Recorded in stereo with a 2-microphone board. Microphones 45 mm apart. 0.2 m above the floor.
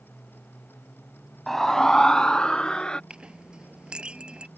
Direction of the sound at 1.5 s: 5° left (ahead or behind).